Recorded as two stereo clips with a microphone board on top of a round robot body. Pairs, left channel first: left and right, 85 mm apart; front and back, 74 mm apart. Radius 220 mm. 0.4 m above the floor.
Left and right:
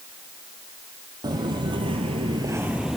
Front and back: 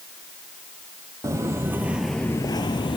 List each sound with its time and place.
1.2 s footsteps: 130° right, 1.1 m; by 3.0 s 5° right, 0.8 m